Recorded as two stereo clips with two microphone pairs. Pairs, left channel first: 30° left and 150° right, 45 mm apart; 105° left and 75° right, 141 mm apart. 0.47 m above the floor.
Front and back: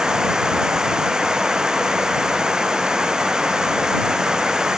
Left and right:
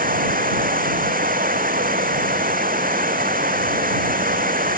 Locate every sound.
0.0 s running water: 75° right